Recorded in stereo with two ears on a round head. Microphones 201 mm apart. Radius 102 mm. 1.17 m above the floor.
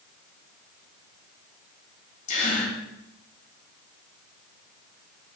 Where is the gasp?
35° left (ahead or behind), 2.5 m.